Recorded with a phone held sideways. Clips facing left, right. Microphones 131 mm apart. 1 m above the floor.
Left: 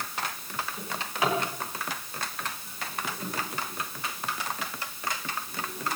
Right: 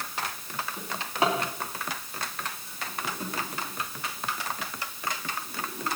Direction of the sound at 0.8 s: 30° right (ahead or behind).